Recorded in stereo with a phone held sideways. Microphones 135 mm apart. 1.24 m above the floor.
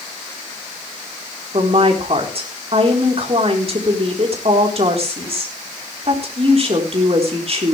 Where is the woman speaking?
50° right (ahead or behind), 4 m.